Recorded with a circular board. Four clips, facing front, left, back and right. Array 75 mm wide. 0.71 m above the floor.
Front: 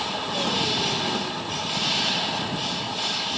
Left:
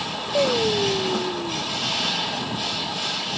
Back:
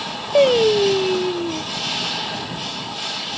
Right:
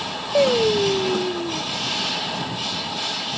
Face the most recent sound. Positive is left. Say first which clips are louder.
# right 4 dB, back 16 dB
turn(degrees=-165)